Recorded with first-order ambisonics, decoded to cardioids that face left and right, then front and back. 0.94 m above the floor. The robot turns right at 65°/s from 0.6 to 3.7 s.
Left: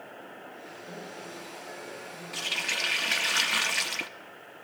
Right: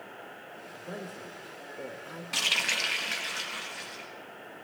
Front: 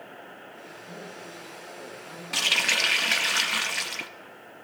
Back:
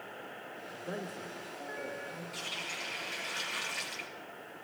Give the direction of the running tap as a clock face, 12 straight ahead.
1 o'clock.